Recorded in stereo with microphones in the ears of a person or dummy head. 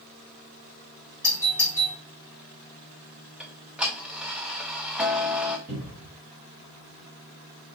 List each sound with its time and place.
1.2 s a doorbell: 15° right (ahead or behind), 1.9 m
3.4 s ticking: 5° right (ahead or behind), 0.6 m
5.7 s a cupboard door: 10° right (ahead or behind), 1.7 m